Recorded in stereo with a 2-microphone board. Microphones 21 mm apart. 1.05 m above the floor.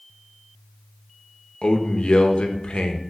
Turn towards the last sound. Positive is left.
turn(degrees=65)  # may be behind; listen again after turning